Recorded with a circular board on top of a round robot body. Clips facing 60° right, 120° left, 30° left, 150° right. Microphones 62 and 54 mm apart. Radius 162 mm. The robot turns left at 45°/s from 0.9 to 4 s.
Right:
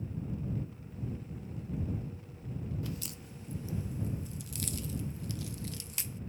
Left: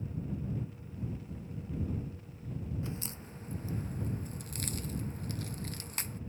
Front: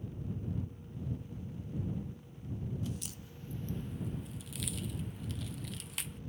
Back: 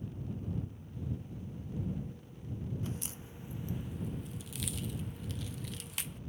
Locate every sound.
2.8 s a crack: 175° left; by 6.2 s 120° left